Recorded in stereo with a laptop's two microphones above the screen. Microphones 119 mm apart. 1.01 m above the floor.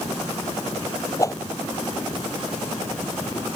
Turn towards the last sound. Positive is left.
turn(degrees=25)  # may be behind; listen again after turning